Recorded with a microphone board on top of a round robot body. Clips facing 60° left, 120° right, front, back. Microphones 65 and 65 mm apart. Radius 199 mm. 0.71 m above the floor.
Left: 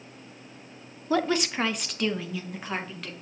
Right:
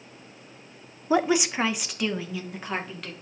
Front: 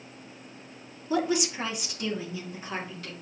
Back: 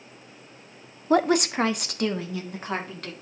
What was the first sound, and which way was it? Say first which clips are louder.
A woman speaking: right 3 dB, back 6 dB; 170° left.